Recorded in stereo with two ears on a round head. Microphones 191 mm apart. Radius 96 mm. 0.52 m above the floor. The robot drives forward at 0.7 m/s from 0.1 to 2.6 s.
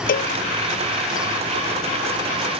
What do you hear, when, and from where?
0.1 s a cowbell: 40° left (ahead or behind)